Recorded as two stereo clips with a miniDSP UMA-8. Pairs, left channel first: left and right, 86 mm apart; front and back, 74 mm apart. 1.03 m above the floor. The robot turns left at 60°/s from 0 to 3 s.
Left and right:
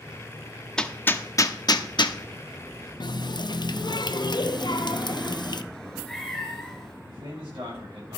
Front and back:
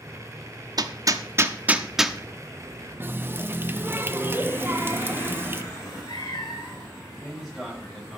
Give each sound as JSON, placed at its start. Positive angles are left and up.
{"t": 0.8, "sound": "hammering", "azimuth_deg": 170, "distance_m": 0.7}
{"t": 3.0, "sound": "a running tap", "azimuth_deg": 120, "distance_m": 0.6}
{"t": 5.7, "sound": "a cat meowing", "azimuth_deg": 5, "distance_m": 2.5}
{"t": 7.0, "sound": "a man speaking", "azimuth_deg": -90, "distance_m": 7.0}